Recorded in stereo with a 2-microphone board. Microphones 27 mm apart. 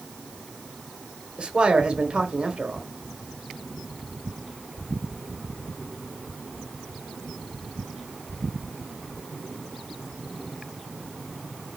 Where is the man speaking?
40° right (ahead or behind), 1.1 m.